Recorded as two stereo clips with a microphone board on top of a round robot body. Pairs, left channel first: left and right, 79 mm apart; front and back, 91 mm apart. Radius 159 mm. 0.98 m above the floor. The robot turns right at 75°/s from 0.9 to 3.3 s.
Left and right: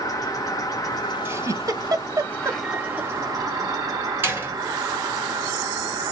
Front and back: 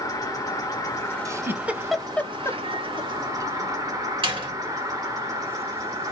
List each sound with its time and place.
0.0 s an insect: 50° left, 1.1 m; by 6.1 s 130° right, 1.1 m
1.2 s a giggle: 140° right, 0.7 m; by 3.1 s 5° right, 0.7 m
4.2 s a door slam: 155° right, 1.4 m